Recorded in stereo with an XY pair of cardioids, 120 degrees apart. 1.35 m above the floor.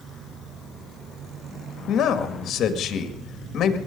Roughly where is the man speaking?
Ahead left.